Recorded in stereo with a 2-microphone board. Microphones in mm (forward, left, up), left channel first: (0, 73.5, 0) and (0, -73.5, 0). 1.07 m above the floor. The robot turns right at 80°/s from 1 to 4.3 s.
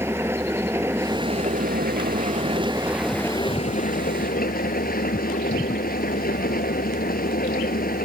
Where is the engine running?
165° right; by 8.1 s 100° left.